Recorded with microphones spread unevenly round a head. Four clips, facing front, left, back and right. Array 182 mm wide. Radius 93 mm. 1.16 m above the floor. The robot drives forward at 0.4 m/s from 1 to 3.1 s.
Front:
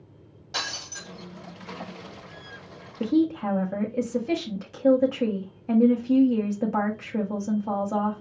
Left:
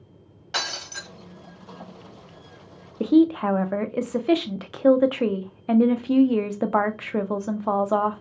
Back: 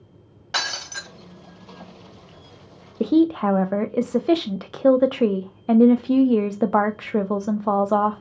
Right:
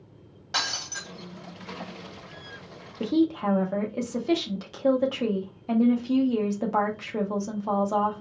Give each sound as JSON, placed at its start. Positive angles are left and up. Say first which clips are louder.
{"t": 0.5, "sound": "breaking glass", "louder": "left 1 dB, back 6 dB", "azimuth_deg": -160, "distance_m": 1.7}
{"t": 3.0, "sound": "a woman speaking", "louder": "left 6 dB, back 5 dB", "azimuth_deg": 175, "distance_m": 0.6}